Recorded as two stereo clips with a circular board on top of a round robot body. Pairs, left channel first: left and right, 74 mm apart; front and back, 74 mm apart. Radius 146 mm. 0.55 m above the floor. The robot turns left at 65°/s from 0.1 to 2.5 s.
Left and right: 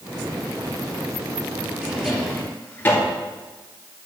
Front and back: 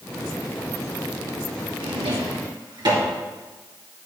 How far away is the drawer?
About 2.5 m.